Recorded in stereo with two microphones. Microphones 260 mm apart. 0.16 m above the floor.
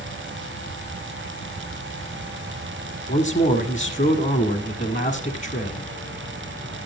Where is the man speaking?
30° left (ahead or behind), 1.3 m.